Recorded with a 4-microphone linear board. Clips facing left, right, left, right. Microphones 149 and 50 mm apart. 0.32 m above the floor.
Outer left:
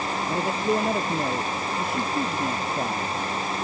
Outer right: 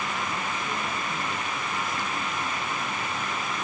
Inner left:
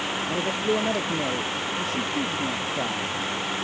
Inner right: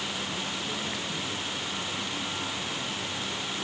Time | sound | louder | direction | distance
0.3 | a man speaking | outer left 8 dB, inner left 9 dB | 75° left (ahead or behind) | ?